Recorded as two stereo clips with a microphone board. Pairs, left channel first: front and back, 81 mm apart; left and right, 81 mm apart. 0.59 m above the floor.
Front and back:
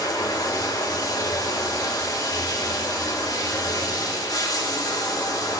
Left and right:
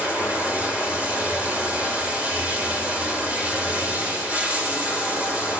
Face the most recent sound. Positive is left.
turn(degrees=-20)